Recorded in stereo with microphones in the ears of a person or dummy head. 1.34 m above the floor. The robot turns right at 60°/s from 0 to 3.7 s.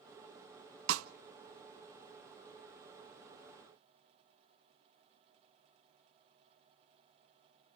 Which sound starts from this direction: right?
A snare drum, at 0.9 s.